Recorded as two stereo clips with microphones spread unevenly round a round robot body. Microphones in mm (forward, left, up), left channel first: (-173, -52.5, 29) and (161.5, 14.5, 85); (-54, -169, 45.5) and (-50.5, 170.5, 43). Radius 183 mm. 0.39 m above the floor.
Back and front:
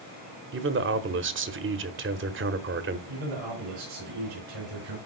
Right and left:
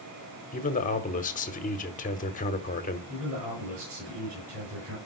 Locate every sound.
0.5 s a man speaking: 35° right, 1.1 m
3.1 s a man speaking: 35° left, 5.5 m